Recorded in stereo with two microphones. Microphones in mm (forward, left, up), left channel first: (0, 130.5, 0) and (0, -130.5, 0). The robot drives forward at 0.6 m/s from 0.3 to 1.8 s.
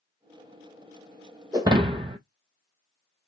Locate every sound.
1.5 s breaking glass: 15° right (ahead or behind), 0.8 m; by 2.2 s 20° right (ahead or behind), 0.6 m